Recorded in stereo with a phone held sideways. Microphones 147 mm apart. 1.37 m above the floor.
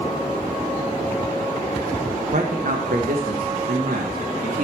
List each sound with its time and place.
2.3 s a man speaking: 60° right (ahead or behind), 1.0 m; by 4.7 s 65° right (ahead or behind), 2.5 m